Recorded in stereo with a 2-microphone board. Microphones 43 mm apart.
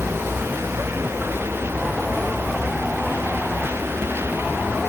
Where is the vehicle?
85° right; by 4.9 s 70° right (ahead or behind).